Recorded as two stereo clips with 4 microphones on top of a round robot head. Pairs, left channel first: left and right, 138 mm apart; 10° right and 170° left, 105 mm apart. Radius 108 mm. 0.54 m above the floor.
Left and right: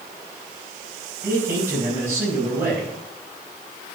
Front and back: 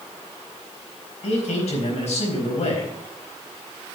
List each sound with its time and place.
1.2 s a man speaking: 15° right, 4 m